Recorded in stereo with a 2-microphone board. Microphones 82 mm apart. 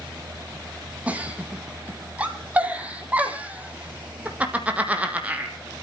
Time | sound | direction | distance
1.1 | a giggle | 15° right (ahead or behind) | 2 m